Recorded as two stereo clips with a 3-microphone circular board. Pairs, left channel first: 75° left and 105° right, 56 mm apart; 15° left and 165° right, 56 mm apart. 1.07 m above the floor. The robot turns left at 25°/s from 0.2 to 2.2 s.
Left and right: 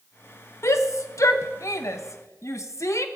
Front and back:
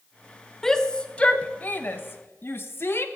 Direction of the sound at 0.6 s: 95° left.